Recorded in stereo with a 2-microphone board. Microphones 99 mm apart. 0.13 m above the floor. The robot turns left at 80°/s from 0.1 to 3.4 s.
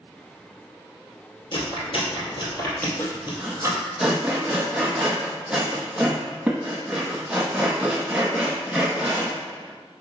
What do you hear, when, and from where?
1.5 s chewing: 50° left (ahead or behind), 3 m; by 3.8 s 25° right (ahead or behind), 3 m
3.0 s sawing: 25° left (ahead or behind), 1.6 m; by 9.4 s 10° right (ahead or behind), 1.6 m